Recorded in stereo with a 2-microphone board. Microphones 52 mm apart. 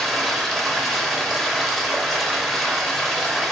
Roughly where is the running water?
Centre.